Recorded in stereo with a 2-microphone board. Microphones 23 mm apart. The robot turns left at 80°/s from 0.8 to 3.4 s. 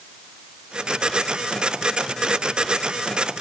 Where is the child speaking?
No child speaking in this recording.